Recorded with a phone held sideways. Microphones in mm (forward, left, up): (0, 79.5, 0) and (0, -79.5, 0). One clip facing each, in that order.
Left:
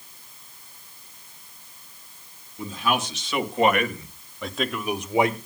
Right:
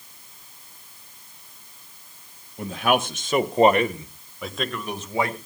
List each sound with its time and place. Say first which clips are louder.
2.6 s a man speaking: right 4 dB; 65° right (ahead or behind), 1.7 m; by 5.4 s 20° left (ahead or behind), 1.7 m